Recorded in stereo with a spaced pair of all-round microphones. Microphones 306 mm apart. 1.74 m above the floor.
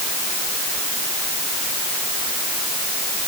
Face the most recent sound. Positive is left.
No sound to turn to.